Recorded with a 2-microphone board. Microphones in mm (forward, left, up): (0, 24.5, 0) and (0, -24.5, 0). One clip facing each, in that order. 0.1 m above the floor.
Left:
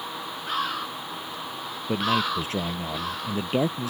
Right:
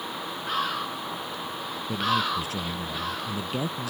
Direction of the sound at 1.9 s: 35° left (ahead or behind).